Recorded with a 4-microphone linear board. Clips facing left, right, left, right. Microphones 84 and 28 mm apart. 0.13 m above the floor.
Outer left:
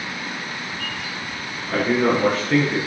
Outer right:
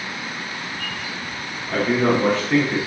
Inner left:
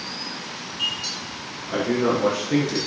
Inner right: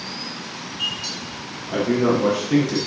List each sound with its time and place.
1.7 s a man speaking: 15° left (ahead or behind), 2 m; by 2.8 s centre (ahead or behind), 1.9 m